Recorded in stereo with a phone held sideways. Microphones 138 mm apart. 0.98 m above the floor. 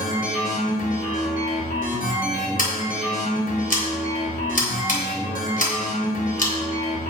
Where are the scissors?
85° left, 3 m.